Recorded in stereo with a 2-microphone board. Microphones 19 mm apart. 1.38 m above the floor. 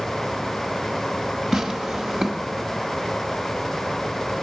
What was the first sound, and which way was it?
Tearing paper, 30° right (ahead or behind).